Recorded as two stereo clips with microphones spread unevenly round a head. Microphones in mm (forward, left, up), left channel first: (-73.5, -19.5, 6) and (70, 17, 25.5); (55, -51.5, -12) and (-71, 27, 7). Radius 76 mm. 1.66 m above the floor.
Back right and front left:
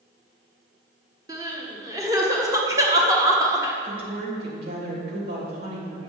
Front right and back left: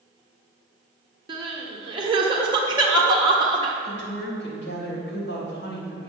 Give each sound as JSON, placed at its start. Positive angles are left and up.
{"t": 1.3, "sound": "crying", "azimuth_deg": 85, "distance_m": 1.1}
{"t": 3.8, "sound": "a woman speaking", "azimuth_deg": -10, "distance_m": 3.0}